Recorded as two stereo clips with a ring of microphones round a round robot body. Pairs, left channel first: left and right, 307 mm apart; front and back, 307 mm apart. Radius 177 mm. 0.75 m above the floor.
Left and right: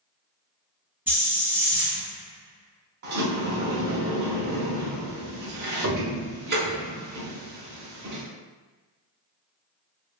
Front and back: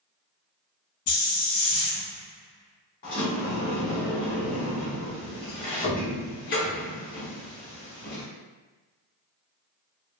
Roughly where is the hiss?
Ahead.